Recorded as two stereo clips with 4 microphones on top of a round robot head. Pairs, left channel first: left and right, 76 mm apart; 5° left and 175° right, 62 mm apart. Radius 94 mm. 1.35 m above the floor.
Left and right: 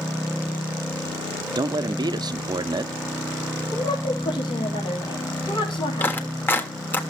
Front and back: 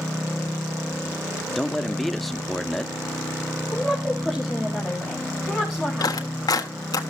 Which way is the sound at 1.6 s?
85° right.